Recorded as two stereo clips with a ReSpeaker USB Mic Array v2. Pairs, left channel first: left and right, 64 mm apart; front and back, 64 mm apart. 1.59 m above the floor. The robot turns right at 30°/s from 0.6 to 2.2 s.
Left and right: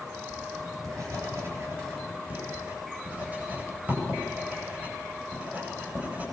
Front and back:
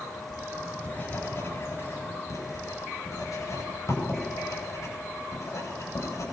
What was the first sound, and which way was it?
Writing, 75° right.